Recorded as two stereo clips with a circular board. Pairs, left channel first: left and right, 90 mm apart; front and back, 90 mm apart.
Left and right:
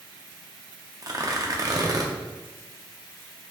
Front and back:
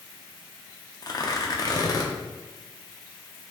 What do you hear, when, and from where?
1.0 s tearing paper: 45° right, 0.6 m